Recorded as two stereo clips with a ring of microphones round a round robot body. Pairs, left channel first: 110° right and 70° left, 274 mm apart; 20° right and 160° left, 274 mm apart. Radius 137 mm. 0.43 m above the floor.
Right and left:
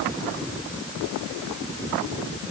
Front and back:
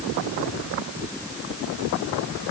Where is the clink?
I don't hear a clink.